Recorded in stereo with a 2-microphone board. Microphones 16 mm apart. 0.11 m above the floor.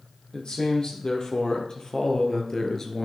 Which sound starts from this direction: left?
A man speaking, at 0.3 s.